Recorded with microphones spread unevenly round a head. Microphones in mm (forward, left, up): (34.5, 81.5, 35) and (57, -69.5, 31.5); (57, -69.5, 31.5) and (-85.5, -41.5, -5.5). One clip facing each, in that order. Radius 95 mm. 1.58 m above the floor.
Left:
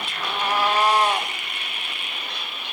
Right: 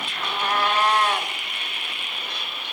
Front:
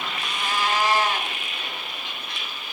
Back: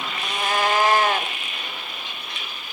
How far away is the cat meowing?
About 1.5 m.